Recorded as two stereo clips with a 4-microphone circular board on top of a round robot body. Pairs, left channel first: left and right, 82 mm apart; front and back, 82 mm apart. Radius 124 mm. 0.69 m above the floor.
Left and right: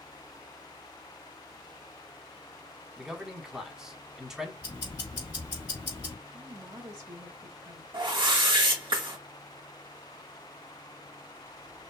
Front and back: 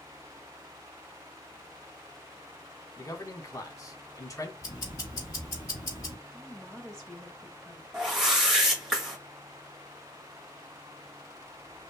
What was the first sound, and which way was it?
A man speaking, 5° right.